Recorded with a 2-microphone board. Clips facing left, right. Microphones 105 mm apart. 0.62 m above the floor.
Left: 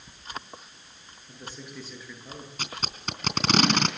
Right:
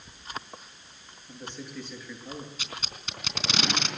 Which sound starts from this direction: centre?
A man speaking, at 1.3 s.